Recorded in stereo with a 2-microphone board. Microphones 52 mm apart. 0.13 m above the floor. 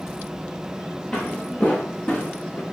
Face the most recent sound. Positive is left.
turn(degrees=30)  # may be behind; listen again after turning